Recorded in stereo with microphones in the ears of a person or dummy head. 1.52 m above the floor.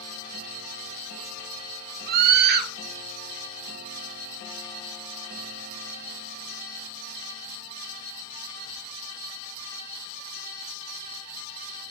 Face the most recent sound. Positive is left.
turn(degrees=-50)  # may be behind; listen again after turning